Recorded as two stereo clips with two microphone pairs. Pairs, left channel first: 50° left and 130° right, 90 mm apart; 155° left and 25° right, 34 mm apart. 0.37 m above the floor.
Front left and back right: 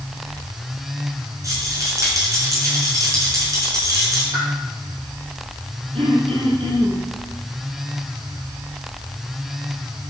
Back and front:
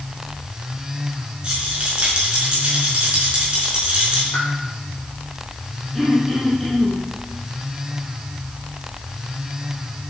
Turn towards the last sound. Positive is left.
turn(degrees=-120)